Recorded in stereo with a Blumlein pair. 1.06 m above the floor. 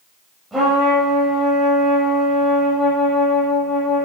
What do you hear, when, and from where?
0.5 s a trumpet: 5° right, 6.5 m